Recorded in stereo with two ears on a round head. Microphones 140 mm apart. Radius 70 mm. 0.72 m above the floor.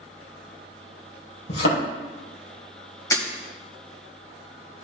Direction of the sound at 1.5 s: 80° left.